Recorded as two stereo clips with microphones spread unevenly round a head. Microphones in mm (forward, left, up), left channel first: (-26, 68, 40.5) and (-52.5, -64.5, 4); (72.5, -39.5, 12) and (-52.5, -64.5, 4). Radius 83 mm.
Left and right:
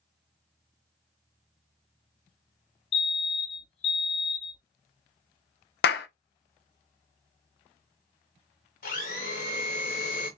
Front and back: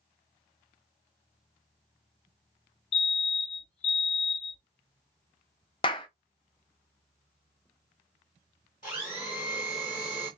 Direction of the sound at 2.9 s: 30° left.